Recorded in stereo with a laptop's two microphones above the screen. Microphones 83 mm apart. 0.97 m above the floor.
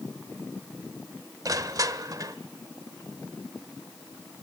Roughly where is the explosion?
I don't hear an explosion.